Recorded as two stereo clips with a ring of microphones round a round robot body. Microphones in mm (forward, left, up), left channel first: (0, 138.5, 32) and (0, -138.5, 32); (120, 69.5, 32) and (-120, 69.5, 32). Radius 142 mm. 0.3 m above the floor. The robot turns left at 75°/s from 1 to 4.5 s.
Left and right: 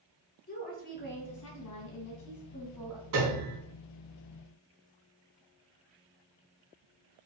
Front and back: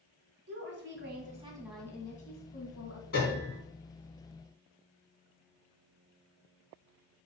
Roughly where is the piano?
Ahead right.